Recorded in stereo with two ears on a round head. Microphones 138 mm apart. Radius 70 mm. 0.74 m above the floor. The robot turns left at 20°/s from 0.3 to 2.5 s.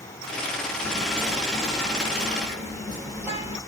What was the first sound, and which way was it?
Whispering, 160° right.